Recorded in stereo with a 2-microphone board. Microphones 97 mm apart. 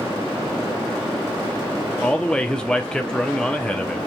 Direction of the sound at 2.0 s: 10° left (ahead or behind).